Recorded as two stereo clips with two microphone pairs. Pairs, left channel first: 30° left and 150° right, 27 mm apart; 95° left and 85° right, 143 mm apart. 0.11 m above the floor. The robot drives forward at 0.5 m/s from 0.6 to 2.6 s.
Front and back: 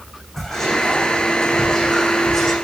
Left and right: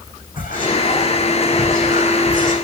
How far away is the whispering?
About 6.5 m.